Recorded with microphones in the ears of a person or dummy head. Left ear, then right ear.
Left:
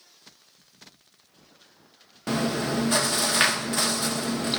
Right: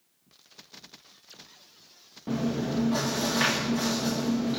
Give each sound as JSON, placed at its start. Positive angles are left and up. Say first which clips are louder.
{"t": 2.3, "sound": "chewing", "louder": "left 4 dB", "side_deg": 55, "distance_m": 0.9}